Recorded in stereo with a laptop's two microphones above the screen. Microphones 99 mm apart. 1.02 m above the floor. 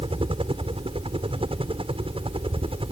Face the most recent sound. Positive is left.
turn(degrees=-70)  # may be behind; listen again after turning